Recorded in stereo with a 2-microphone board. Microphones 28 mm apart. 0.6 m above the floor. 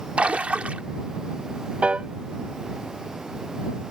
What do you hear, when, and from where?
0.2 s a splash: 50° right (ahead or behind)
1.8 s a piano: 45° right (ahead or behind)